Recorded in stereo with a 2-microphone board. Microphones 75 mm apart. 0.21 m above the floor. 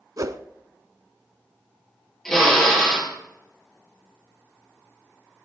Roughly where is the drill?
Centre.